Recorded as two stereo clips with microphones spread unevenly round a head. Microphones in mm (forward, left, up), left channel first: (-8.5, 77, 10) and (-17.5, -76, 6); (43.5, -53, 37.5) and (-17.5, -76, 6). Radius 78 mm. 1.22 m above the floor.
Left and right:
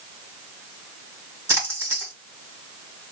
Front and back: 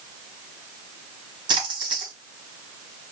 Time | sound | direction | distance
1.5 | a splash | 170° right | 1.5 m